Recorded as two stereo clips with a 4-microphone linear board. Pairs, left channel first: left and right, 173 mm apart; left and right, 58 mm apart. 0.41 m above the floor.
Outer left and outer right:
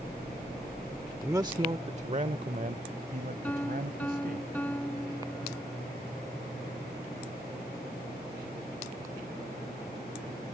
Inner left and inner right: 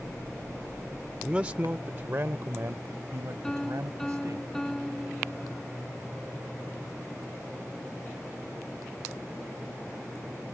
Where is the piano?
10° left (ahead or behind).